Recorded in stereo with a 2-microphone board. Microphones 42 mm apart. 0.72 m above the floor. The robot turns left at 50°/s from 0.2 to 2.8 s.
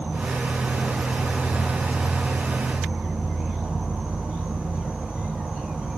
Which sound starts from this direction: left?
An insect, at 0.0 s.